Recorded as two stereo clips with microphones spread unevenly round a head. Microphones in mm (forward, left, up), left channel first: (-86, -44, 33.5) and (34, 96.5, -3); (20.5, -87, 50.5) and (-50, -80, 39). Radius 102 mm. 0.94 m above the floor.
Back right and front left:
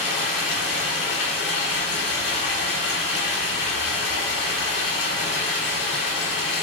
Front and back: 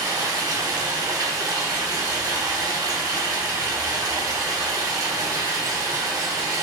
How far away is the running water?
About 2 m.